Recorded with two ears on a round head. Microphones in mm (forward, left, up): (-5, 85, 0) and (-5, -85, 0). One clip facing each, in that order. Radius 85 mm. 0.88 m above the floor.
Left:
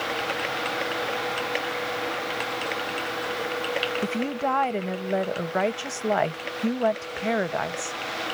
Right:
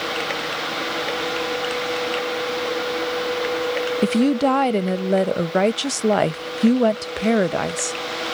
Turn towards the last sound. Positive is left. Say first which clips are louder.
# right 13 dB
turn(degrees=-45)  # may be behind; listen again after turning